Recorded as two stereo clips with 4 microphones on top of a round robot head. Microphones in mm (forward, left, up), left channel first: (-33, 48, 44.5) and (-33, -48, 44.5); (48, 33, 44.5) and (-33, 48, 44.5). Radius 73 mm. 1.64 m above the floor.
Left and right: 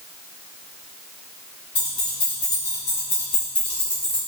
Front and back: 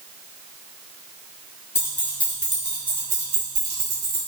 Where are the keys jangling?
40° left, 0.9 m; by 4.2 s 175° left, 1.1 m.